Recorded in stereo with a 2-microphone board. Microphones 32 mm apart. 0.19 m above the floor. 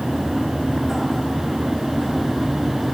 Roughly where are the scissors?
I don't hear scissors.